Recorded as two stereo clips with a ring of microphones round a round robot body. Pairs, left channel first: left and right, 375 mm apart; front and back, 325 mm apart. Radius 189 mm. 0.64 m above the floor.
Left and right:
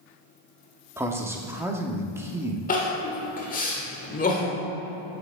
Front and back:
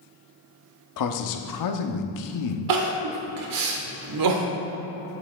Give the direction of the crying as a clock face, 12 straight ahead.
7 o'clock.